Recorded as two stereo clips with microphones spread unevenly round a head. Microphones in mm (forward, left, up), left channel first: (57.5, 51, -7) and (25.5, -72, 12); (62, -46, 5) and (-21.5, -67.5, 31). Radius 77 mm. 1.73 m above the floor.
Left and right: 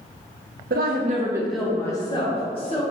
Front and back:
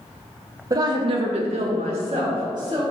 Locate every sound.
0.7 s a woman speaking: 120° right, 0.8 m; by 2.8 s 130° left, 2 m